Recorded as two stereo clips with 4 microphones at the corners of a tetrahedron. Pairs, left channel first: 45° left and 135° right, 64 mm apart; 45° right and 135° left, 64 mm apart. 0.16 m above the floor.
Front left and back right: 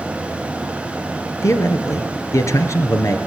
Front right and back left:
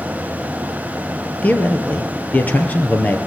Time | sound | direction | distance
1.4 | a man speaking | 20° left | 2.5 m